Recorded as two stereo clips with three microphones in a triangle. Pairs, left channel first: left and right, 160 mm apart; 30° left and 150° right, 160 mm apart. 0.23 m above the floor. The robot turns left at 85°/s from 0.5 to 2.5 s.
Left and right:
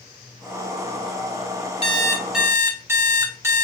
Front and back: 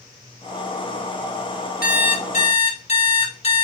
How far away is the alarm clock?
About 1.1 m.